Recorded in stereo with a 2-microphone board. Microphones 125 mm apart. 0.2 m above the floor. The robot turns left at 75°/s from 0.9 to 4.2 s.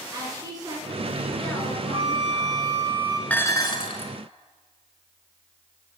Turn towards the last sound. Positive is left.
turn(degrees=100)